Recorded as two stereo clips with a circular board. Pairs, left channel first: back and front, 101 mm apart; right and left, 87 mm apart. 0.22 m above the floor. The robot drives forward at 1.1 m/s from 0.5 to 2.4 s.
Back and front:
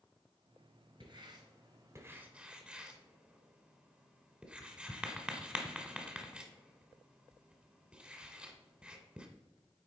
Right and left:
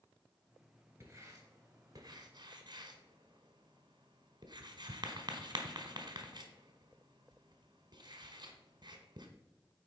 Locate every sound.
1.0 s writing: 30° left, 2 m; by 9.3 s 80° left, 1.2 m